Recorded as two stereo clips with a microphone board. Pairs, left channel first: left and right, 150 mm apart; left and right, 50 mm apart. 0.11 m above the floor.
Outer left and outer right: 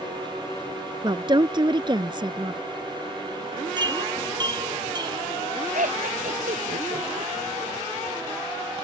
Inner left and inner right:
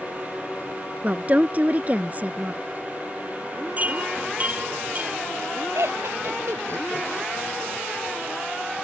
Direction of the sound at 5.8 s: 65° right (ahead or behind).